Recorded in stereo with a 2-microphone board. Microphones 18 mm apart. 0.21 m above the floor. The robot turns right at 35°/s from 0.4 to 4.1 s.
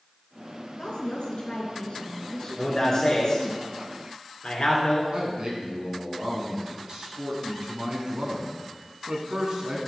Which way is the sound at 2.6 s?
25° left (ahead or behind).